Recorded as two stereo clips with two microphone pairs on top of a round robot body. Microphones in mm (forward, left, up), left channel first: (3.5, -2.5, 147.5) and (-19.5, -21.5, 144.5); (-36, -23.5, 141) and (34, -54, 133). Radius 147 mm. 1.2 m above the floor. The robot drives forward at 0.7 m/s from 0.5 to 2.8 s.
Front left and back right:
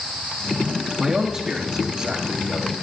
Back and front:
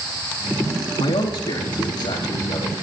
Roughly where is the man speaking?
Behind left.